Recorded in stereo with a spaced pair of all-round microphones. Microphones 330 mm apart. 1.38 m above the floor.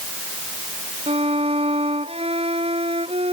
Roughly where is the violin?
Centre.